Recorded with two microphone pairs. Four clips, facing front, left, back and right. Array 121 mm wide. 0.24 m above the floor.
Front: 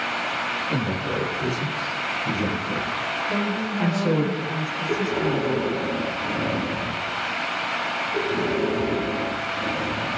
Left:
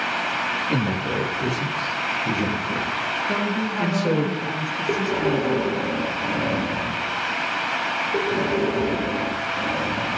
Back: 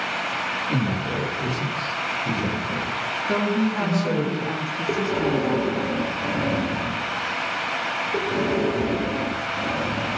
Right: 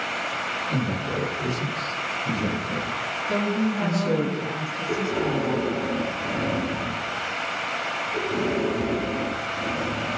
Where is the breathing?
125° left, 4.5 m.